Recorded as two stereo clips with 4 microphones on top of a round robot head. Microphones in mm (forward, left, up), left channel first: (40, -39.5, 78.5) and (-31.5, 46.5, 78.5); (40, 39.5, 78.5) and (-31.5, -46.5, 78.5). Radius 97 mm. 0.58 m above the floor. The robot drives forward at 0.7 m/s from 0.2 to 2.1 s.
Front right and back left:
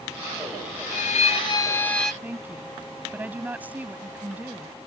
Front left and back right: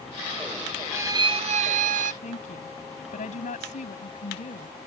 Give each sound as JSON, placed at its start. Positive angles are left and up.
{"t": 0.9, "sound": "a violin", "azimuth_deg": -60}
{"t": 2.2, "sound": "a woman speaking", "azimuth_deg": 55}